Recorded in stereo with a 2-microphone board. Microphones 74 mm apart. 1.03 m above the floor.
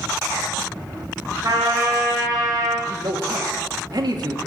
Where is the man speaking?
65° right (ahead or behind), 2 m.